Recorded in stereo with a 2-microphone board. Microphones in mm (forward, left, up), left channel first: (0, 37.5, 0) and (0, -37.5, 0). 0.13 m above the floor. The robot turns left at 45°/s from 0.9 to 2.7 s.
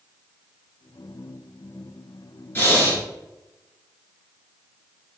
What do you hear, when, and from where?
2.5 s breathing: 30° left (ahead or behind), 1.0 m; by 3.0 s 25° left (ahead or behind), 1.0 m